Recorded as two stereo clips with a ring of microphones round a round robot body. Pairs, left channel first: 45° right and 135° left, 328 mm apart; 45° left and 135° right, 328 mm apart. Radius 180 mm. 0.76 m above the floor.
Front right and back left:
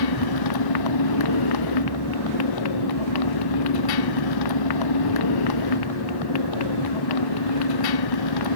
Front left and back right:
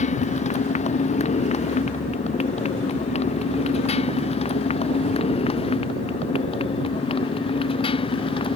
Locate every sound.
0.0 s a motorcycle: 25° right; by 8.6 s 30° right